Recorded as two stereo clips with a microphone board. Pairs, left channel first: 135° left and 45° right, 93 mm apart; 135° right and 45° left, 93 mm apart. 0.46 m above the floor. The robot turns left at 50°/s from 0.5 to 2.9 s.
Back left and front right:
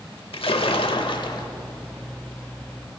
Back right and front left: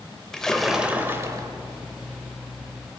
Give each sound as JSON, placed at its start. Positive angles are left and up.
{"t": 0.3, "sound": "a splash", "azimuth_deg": 140, "distance_m": 0.7}